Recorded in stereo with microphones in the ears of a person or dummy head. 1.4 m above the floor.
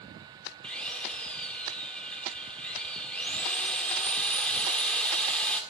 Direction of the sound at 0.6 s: 5° left (ahead or behind).